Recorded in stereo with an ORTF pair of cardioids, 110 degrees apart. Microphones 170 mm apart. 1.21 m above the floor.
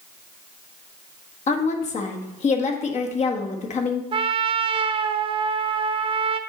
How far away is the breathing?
I don't hear breathing.